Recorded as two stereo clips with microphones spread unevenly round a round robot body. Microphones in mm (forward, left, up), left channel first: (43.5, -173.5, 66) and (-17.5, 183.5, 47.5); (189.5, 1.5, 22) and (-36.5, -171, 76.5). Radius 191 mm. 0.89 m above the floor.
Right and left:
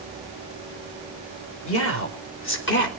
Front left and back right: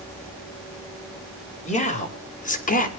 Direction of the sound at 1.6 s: 25° right.